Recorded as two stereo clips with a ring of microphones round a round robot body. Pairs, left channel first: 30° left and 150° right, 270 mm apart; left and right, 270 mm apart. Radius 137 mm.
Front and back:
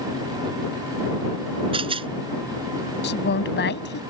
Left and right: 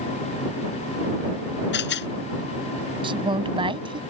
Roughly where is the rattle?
Behind left.